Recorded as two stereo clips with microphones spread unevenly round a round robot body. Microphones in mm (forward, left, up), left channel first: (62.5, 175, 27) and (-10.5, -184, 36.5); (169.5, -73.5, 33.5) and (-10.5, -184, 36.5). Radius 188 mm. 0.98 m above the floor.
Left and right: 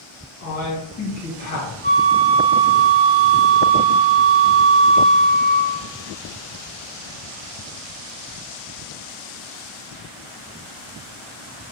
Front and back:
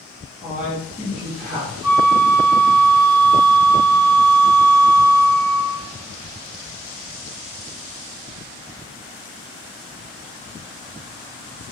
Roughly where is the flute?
Right.